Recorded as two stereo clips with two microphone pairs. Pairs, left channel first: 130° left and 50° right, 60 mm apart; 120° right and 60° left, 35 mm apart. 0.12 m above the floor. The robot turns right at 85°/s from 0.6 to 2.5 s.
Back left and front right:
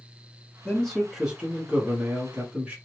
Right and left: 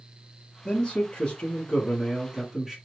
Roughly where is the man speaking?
Behind.